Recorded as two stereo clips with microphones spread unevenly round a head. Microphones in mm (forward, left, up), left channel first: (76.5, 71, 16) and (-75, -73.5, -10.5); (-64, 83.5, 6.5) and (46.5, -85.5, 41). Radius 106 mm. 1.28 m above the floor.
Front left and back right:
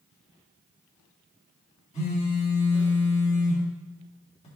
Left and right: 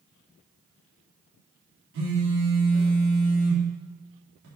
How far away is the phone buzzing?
About 3 m.